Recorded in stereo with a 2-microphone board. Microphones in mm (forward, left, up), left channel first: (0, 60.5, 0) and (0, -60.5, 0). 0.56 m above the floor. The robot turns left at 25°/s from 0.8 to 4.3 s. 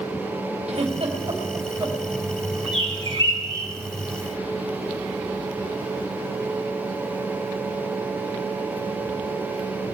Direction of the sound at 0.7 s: 60° right (ahead or behind).